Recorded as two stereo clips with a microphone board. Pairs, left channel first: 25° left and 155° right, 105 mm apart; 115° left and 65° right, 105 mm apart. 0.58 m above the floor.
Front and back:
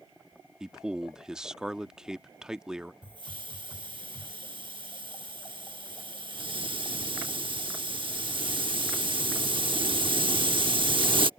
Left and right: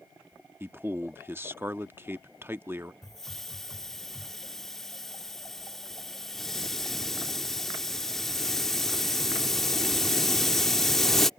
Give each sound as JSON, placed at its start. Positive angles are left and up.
{"t": 0.6, "sound": "a man speaking", "azimuth_deg": -85}
{"t": 3.0, "sound": "a hiss", "azimuth_deg": -160}